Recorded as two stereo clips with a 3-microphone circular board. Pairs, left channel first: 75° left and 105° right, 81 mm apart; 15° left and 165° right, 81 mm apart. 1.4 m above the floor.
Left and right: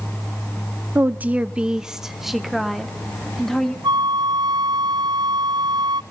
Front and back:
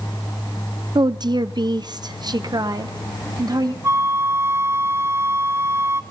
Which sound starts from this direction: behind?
A woman speaking, at 0.9 s.